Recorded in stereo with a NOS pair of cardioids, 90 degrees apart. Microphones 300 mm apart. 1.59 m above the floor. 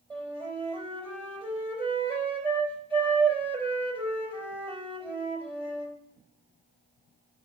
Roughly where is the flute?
Ahead.